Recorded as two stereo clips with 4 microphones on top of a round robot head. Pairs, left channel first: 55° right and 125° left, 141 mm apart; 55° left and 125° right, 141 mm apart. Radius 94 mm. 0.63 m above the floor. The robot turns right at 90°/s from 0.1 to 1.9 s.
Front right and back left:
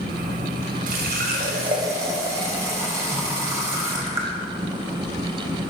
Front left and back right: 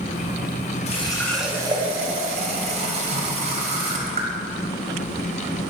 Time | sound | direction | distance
0.9 | a running tap | 100° left | 2.5 m